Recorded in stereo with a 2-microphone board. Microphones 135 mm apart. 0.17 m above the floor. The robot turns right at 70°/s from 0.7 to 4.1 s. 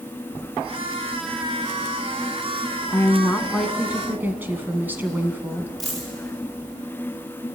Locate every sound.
2.9 s a woman speaking: 25° left (ahead or behind), 1.1 m; by 5.7 s 15° right (ahead or behind), 1.1 m
5.8 s a dropped coin: centre (ahead or behind), 10 m